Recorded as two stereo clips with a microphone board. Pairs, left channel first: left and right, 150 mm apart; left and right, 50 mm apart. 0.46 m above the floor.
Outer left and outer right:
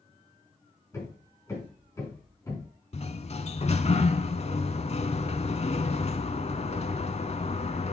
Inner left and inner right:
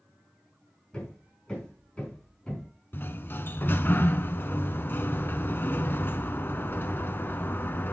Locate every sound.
0.9 s hammering: 20° left (ahead or behind), 4.5 m
2.9 s a sliding door: 45° left (ahead or behind), 0.7 m